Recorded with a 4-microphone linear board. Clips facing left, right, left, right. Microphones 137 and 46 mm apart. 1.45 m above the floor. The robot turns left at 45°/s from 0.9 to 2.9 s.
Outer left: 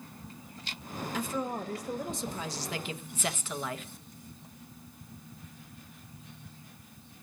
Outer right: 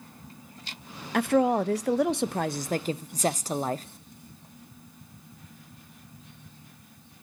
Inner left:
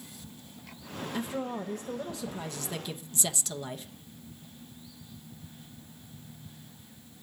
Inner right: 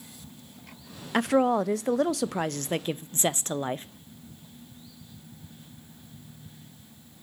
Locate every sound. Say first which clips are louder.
1.1 s a woman speaking: outer right 12 dB, inner right 13 dB; 65° right, 0.5 m; by 3.9 s 140° right, 0.5 m